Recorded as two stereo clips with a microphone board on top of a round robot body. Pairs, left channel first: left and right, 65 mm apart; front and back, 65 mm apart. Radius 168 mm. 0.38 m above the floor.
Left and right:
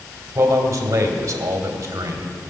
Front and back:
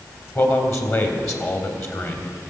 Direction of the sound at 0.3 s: 45° right.